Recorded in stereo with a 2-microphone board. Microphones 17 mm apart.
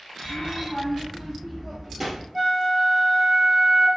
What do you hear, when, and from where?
0.2 s a child speaking: 15° left (ahead or behind), 1.5 m; by 2.2 s 20° right (ahead or behind), 1.9 m
2.3 s a flute: 10° right (ahead or behind), 1.9 m